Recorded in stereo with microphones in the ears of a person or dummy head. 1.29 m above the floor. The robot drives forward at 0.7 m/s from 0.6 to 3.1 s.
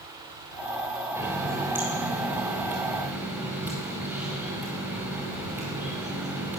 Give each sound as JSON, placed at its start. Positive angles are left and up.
{"t": 1.1, "sound": "a running tap", "side_deg": -10, "distance_m": 3.5}